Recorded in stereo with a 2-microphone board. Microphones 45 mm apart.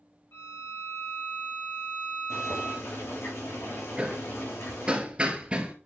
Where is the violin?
75° left (ahead or behind), 5 m.